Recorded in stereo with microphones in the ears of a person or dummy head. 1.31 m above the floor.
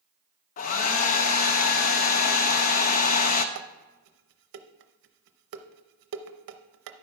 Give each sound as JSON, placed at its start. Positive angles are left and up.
{"t": 0.6, "sound": "a hair dryer", "side_deg": 45, "distance_m": 0.6}
{"t": 3.5, "sound": "dishes clattering", "side_deg": -60, "distance_m": 0.6}